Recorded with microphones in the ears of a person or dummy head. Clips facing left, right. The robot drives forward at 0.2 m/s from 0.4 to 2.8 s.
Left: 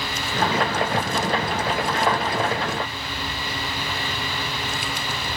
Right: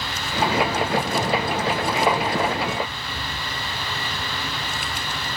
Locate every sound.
Only background noise.